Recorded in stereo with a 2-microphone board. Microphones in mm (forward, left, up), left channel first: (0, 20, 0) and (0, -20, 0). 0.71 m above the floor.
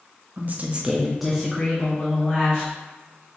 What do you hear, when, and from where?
0.4 s a woman speaking: 50° right (ahead or behind), 0.7 m; by 2.7 s 25° left (ahead or behind), 1.7 m